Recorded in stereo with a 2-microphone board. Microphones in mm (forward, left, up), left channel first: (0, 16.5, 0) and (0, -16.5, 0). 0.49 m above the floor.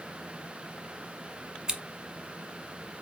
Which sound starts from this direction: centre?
Scissors, at 1.7 s.